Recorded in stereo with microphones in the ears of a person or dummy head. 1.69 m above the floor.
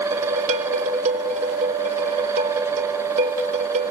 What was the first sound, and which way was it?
Dishes clattering, 40° right (ahead or behind).